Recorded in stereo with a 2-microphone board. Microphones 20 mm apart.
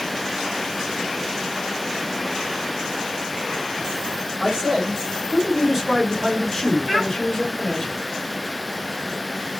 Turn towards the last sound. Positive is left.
turn(degrees=-45)  # may be behind; listen again after turning